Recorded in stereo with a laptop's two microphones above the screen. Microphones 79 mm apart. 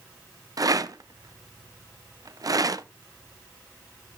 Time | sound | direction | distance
0.6 | a rattle | 50° right (ahead or behind) | 0.5 m